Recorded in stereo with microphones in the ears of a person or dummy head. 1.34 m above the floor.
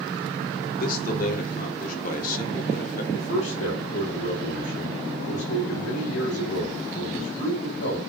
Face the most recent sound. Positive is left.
turn(degrees=85)